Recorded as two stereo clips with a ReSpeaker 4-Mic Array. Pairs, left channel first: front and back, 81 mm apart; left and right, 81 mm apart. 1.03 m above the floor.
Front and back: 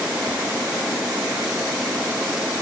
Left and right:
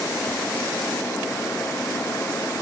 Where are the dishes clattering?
I don't hear dishes clattering.